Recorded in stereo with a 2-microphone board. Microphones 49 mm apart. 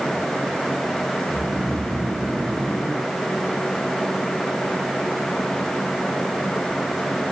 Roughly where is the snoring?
Right.